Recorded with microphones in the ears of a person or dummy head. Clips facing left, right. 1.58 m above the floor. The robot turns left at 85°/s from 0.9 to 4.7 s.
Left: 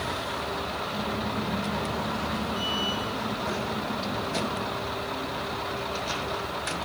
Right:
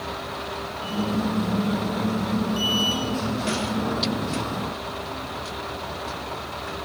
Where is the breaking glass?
I don't hear breaking glass.